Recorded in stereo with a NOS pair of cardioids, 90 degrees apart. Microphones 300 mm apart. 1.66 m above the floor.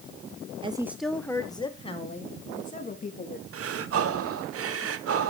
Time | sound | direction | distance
0.6 | a woman speaking | 20° right | 0.9 m
3.5 | breathing | 50° right | 1.1 m